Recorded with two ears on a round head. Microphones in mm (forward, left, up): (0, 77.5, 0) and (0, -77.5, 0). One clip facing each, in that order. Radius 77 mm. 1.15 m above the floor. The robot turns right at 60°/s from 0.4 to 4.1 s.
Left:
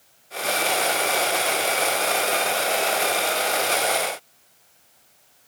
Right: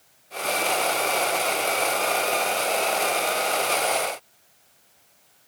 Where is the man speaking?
I don't hear a man speaking.